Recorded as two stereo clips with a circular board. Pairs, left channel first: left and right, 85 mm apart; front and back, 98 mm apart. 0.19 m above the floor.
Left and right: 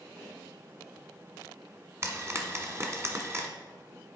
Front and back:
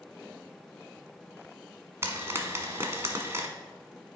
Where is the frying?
130° right, 1.1 m.